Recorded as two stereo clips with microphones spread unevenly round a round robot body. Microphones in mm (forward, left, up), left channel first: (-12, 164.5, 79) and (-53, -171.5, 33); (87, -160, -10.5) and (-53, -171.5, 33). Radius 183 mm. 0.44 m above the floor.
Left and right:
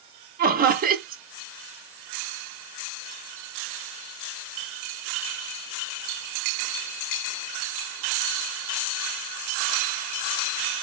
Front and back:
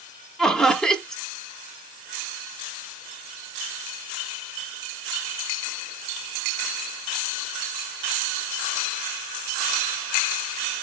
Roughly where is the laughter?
Ahead right.